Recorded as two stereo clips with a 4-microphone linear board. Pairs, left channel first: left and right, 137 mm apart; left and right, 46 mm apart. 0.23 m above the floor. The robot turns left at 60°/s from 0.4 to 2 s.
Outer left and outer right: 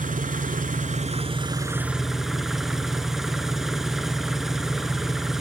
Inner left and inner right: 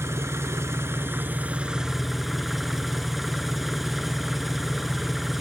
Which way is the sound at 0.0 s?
80° right.